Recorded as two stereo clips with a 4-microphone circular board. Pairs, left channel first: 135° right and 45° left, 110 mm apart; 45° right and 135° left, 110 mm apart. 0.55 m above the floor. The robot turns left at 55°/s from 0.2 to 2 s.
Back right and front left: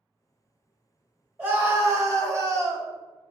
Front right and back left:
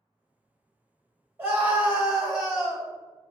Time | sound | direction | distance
1.4 | a scream | 90° left | 1.2 m